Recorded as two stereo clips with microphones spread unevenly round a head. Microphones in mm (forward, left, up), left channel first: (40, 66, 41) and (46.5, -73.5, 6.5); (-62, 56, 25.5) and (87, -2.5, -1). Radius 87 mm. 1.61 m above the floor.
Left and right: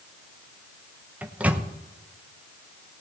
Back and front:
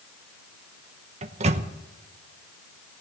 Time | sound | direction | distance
1.2 | a microwave | 10° left | 0.8 m